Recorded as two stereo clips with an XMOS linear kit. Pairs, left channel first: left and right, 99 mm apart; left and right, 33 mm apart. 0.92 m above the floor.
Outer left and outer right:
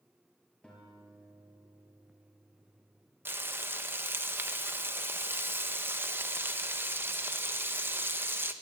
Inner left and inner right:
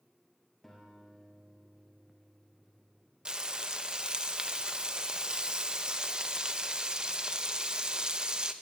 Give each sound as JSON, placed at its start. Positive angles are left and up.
{"t": 0.6, "sound": "a guitar", "side_deg": 10, "distance_m": 5.5}
{"t": 3.2, "sound": "frying", "side_deg": -25, "distance_m": 1.1}